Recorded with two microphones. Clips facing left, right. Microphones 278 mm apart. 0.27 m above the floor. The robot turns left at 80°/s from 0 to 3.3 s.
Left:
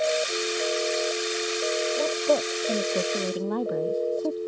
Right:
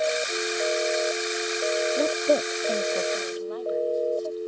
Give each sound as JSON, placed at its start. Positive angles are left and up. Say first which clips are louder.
{"t": 2.0, "sound": "a woman speaking", "louder": "right 1 dB", "side_deg": -40}